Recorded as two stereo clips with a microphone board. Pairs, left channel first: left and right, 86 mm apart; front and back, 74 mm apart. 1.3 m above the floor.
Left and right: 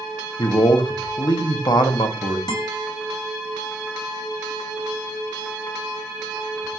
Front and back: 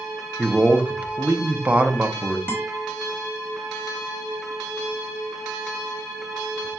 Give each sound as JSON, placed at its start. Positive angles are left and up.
{"t": 0.4, "sound": "a man speaking", "azimuth_deg": 110, "distance_m": 0.6}
{"t": 2.5, "sound": "a guitar", "azimuth_deg": 65, "distance_m": 1.3}